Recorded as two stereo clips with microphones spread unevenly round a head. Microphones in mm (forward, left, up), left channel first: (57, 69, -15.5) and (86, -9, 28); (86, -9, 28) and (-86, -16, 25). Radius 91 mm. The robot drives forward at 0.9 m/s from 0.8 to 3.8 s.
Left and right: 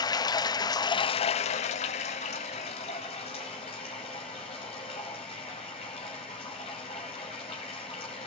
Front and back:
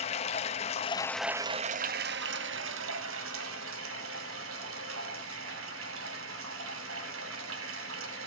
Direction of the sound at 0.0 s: 55° left.